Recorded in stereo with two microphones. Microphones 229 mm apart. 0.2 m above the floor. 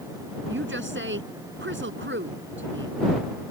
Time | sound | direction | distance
0.5 | a woman speaking | 60° right (ahead or behind) | ?